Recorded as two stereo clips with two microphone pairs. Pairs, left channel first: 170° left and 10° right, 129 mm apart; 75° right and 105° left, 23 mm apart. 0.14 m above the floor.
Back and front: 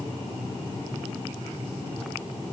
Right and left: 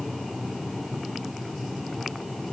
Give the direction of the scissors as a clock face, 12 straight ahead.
I don't hear scissors.